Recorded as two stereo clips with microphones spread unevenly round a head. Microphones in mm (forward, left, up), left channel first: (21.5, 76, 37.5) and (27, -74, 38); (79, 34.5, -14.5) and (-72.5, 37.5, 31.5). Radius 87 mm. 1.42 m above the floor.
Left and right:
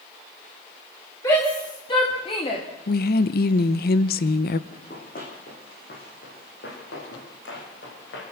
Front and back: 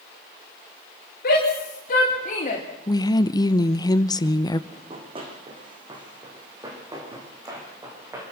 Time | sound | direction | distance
1.2 | a shout | 25° left | 4.5 m
2.9 | a woman speaking | 70° left | 0.9 m
4.7 | running footsteps | 135° left | 4.5 m